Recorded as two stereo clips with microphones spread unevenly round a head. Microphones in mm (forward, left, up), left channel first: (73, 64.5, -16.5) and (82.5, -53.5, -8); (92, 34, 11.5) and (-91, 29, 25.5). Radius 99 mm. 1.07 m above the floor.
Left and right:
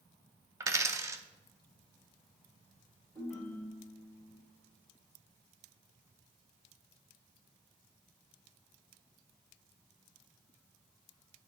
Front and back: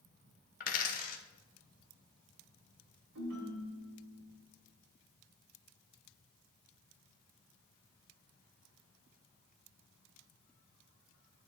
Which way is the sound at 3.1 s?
175° right.